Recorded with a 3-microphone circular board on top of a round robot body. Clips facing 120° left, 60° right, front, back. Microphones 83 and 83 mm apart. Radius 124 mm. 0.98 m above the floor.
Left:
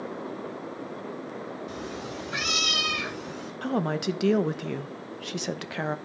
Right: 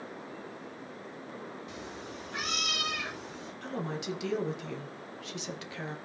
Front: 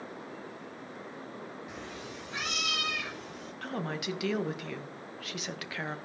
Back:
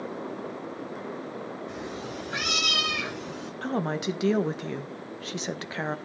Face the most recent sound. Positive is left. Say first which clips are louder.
# left 9 dB, back 7 dB
turn(degrees=125)